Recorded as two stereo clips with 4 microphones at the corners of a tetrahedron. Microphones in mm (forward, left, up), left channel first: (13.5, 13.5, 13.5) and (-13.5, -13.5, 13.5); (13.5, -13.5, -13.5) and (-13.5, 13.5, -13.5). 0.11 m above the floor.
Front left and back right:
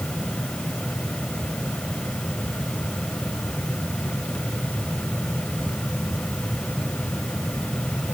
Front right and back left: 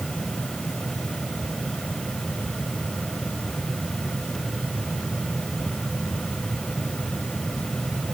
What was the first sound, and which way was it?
Only background noise.